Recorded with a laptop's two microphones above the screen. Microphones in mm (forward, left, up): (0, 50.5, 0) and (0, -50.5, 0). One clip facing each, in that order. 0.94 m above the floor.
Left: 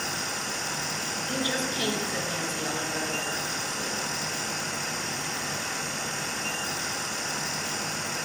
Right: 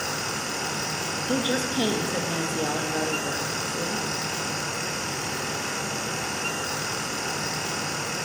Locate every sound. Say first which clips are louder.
0.0 s a fan: right 3 dB; 65° right (ahead or behind), 1.1 m
1.3 s a woman speaking: right 5 dB; 30° right (ahead or behind), 1.0 m